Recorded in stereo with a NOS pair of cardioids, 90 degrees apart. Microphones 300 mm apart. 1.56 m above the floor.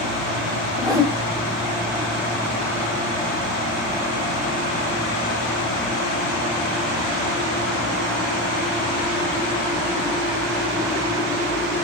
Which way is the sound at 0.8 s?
10° right.